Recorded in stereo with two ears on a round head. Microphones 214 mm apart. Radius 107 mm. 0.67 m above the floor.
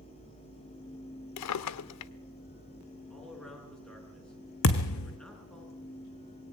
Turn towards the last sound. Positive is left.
turn(degrees=60)  # may be behind; listen again after turning